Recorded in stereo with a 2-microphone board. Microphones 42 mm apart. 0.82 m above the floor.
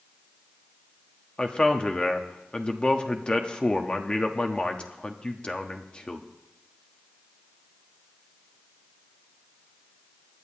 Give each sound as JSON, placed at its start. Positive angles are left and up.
{"t": 1.4, "sound": "a man speaking", "side_deg": 25, "distance_m": 1.0}